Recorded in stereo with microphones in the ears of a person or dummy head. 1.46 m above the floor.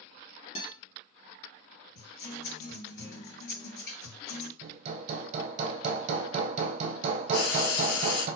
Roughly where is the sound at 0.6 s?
Left.